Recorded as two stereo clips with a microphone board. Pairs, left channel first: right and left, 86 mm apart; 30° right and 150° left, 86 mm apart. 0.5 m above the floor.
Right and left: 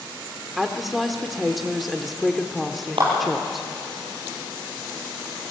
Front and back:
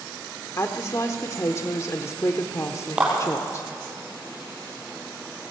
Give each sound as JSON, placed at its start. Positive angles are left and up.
{"t": 0.6, "sound": "a woman speaking", "azimuth_deg": 0, "distance_m": 1.2}
{"t": 3.0, "sound": "a clap", "azimuth_deg": 70, "distance_m": 9.5}